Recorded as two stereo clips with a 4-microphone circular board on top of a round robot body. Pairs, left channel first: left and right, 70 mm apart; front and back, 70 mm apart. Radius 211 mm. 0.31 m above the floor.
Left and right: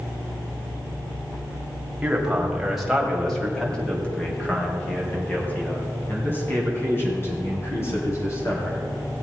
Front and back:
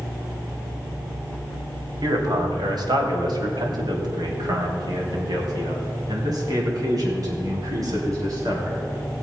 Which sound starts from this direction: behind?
A man speaking, at 2.0 s.